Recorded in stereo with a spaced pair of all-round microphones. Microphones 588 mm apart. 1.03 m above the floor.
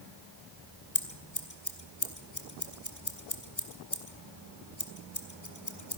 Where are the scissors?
30° left (ahead or behind), 2 m.